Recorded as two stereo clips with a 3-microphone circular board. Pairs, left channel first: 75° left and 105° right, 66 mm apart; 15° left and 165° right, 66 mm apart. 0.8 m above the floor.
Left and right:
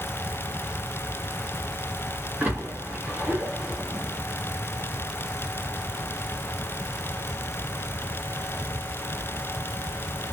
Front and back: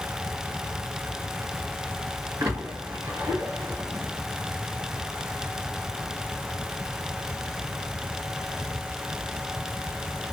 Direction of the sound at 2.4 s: 170° right.